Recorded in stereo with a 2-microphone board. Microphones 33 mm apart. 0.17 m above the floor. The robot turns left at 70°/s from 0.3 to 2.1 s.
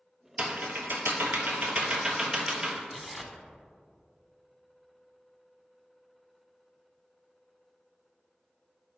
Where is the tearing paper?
5° right (ahead or behind), 0.6 m.